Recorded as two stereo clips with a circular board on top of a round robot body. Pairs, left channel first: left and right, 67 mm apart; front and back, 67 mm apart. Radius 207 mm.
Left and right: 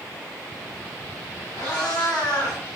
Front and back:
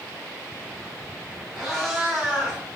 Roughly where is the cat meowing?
Left.